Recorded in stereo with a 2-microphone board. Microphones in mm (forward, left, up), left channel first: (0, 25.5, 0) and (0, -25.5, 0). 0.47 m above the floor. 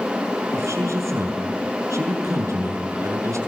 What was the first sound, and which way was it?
A man speaking, 75° right (ahead or behind).